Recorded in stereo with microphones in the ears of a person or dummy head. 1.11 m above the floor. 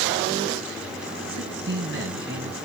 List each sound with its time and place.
1.3 s a man speaking: 55° right (ahead or behind), 1.5 m